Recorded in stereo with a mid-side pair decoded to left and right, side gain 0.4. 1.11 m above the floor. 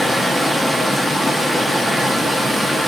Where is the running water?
5° right, 0.9 m.